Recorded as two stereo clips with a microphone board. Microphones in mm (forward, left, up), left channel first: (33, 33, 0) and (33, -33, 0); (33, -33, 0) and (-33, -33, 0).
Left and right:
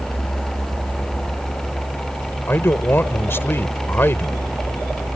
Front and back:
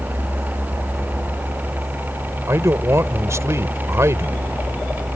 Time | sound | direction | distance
2.5 | a man speaking | 140° left | ?